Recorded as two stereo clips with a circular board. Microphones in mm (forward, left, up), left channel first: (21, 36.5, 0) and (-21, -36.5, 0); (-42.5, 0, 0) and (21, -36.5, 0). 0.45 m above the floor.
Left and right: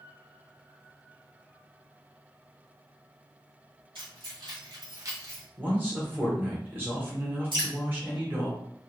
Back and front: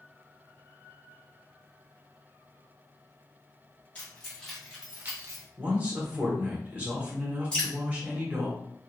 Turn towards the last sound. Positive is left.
turn(degrees=-135)